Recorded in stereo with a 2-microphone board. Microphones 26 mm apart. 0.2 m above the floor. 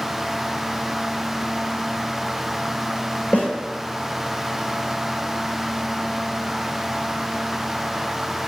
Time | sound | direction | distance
3.3 | a snare drum | 75° left (ahead or behind) | 3 m